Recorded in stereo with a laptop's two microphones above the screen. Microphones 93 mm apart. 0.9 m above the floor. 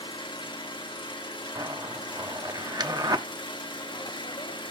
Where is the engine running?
60° left (ahead or behind), 1.2 m.